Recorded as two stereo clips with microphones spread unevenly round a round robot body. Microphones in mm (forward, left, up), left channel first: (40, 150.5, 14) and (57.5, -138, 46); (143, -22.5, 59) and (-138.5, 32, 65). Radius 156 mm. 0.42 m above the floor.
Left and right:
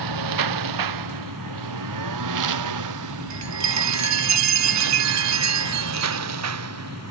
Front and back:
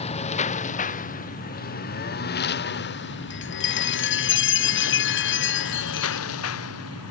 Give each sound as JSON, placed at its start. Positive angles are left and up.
{"t": 0.0, "sound": "a lawn mower", "azimuth_deg": -80}
{"t": 3.3, "sound": "a chime", "azimuth_deg": -60}